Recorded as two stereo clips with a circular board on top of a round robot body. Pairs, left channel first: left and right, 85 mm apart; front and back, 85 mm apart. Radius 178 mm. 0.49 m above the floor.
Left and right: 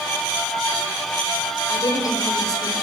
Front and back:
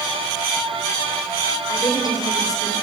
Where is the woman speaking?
45° left, 3.5 m.